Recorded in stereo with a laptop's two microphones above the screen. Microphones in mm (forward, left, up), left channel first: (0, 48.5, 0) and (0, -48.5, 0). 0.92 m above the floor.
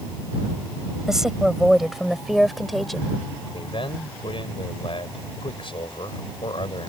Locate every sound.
1.1 s a woman speaking: 5° right (ahead or behind); by 3.2 s 5° left (ahead or behind)
3.5 s a man speaking: 65° left (ahead or behind)